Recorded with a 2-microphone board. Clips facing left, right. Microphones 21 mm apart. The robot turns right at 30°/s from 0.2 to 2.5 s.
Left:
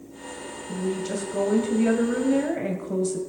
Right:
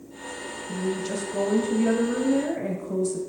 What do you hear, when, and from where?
0.7 s a woman speaking: 15° right, 1.9 m; by 3.2 s 35° left, 1.9 m